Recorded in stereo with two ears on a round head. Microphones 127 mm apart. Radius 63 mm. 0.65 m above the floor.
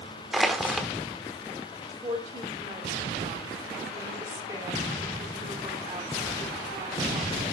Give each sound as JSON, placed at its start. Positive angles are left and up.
{"t": 0.3, "sound": "crushing", "side_deg": 0, "distance_m": 1.1}
{"t": 1.9, "sound": "a woman speaking", "side_deg": -25, "distance_m": 2.0}